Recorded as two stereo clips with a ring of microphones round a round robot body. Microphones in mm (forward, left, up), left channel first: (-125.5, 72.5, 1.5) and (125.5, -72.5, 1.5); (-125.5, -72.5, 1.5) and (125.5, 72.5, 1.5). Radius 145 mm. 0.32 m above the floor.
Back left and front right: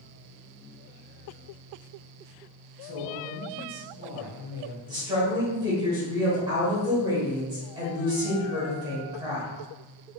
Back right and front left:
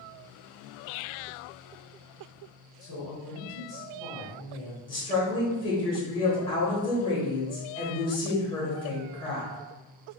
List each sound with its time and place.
2.8 s a woman speaking: 100° right, 1.4 m; by 4.8 s 35° right, 1.3 m
4.9 s a woman speaking: 90° right, 0.9 m